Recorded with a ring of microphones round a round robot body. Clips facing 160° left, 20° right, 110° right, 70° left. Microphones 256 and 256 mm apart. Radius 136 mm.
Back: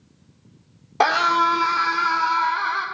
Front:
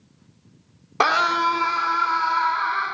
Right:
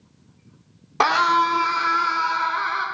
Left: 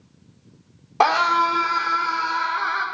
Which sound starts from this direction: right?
A scream, at 1.0 s.